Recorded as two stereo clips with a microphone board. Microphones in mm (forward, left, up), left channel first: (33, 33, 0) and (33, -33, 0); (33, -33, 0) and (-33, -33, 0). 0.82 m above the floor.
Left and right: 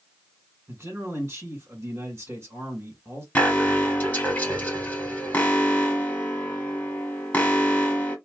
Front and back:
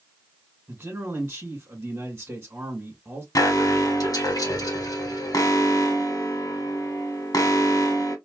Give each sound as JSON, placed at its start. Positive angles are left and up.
{"t": 0.7, "sound": "a man speaking", "azimuth_deg": -120, "distance_m": 1.6}
{"t": 3.4, "sound": "an alarm", "azimuth_deg": 20, "distance_m": 1.6}